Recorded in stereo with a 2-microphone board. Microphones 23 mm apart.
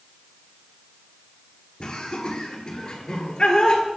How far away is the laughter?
About 3.5 m.